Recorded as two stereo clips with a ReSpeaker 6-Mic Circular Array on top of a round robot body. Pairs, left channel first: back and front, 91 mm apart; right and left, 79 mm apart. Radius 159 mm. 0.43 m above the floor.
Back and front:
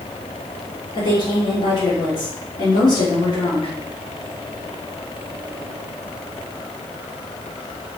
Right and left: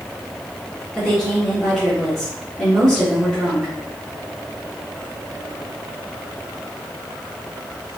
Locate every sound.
0.9 s a woman speaking: straight behind, 1.8 m